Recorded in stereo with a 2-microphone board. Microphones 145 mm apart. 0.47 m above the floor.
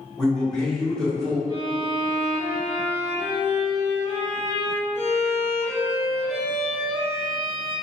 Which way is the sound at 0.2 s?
5° left (ahead or behind).